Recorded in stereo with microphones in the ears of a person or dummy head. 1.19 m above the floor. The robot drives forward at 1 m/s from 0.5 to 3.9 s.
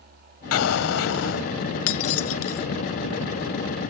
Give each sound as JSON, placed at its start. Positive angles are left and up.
{"t": 0.5, "sound": "an explosion", "side_deg": 80}
{"t": 1.9, "sound": "breaking glass", "side_deg": 80}